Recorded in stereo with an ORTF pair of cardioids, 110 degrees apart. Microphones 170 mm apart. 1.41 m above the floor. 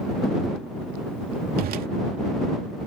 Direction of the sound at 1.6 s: 60° right.